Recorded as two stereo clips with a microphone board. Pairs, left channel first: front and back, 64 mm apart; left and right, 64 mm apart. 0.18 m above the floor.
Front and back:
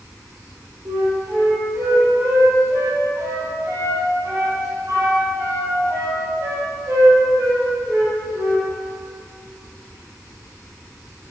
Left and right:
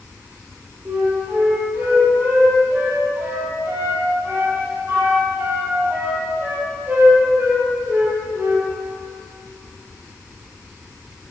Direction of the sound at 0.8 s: 145° right.